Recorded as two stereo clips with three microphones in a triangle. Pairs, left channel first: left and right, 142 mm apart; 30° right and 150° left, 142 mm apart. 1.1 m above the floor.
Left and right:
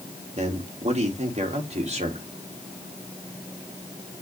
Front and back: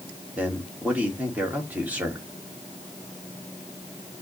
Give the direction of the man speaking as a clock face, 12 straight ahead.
4 o'clock.